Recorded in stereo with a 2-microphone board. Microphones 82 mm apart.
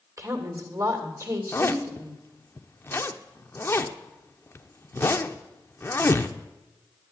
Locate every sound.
0.2 s a woman speaking: 40° right (ahead or behind), 2.5 m
1.5 s a zipper: 30° left (ahead or behind), 0.6 m